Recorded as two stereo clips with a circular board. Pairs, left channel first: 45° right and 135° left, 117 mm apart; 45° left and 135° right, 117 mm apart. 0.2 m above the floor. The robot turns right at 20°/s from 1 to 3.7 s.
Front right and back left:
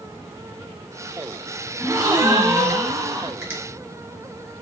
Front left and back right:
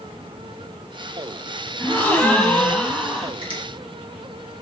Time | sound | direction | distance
1.8 | a gasp | 100° left | 1.0 m
3.4 | a finger snap | 160° right | 1.9 m